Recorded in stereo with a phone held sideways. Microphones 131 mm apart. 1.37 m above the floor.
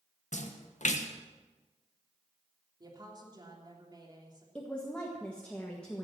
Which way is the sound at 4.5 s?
10° left (ahead or behind).